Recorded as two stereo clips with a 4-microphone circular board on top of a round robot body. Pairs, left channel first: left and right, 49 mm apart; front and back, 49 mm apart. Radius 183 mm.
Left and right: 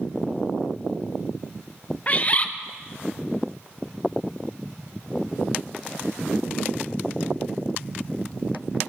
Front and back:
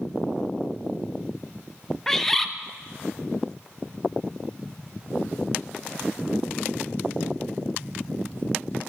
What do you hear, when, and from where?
2.1 s a bird: 75° left, 1.2 m